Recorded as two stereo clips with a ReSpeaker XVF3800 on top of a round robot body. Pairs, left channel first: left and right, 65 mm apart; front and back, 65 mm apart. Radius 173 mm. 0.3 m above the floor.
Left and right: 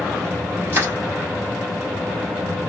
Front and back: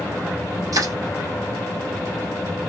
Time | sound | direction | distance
0.7 | crushing | 145° right | 2.5 m